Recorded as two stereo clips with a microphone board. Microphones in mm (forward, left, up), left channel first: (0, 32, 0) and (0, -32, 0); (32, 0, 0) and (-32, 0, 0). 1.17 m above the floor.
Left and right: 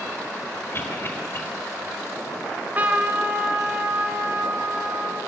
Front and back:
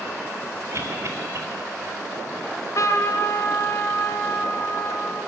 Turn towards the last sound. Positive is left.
turn(degrees=-30)